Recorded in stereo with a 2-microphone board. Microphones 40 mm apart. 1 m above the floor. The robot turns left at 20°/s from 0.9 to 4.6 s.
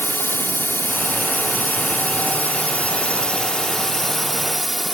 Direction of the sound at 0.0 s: 75° left.